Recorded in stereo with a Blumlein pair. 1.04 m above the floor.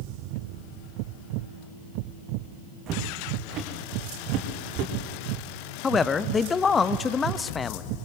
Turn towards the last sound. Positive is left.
turn(degrees=20)